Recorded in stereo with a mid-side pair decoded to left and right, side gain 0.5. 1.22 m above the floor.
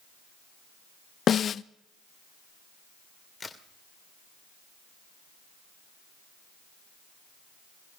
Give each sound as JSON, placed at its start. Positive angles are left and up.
{"t": 1.3, "sound": "a snare drum", "azimuth_deg": 50, "distance_m": 0.5}
{"t": 3.4, "sound": "a crack", "azimuth_deg": 25, "distance_m": 2.0}